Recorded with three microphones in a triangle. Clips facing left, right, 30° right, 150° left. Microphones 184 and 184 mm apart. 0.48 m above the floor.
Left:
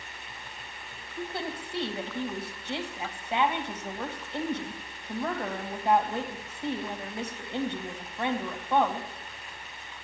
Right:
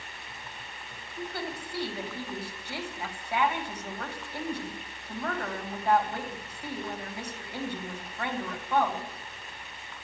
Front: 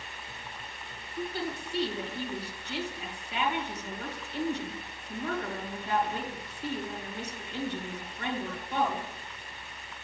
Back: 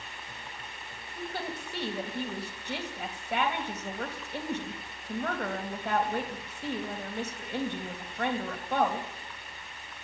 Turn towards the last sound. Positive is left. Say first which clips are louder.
# left 1 dB, front 3 dB
turn(degrees=155)